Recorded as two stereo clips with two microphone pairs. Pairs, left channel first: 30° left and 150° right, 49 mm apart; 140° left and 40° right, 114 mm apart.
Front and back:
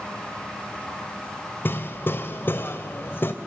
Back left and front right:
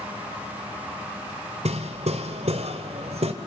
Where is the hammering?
15° right, 1.9 m.